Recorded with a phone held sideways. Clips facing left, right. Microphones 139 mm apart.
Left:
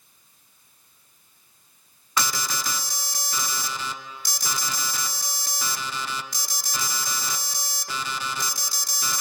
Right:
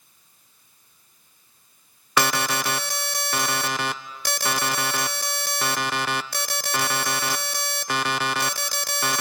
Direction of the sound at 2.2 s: 65° right (ahead or behind).